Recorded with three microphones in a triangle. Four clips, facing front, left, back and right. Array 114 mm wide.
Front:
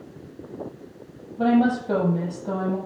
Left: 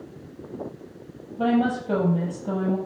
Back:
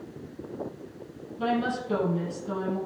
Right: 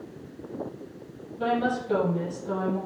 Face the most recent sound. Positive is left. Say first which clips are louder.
# left 4 dB, front 8 dB
turn(degrees=35)